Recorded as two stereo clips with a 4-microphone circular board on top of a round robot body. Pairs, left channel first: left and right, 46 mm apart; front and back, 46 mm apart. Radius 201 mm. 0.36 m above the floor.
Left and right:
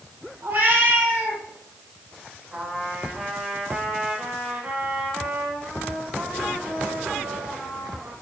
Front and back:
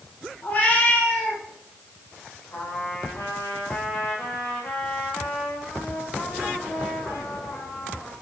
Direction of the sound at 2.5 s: 20° right.